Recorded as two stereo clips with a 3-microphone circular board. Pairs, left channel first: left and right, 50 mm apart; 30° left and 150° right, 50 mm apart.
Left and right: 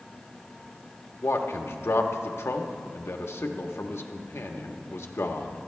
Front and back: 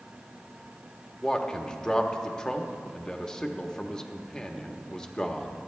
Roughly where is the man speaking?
Left.